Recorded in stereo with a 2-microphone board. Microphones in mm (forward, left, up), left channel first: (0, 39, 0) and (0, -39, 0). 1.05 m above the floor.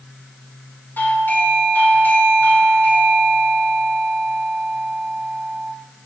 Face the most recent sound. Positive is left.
turn(degrees=25)  # may be behind; listen again after turning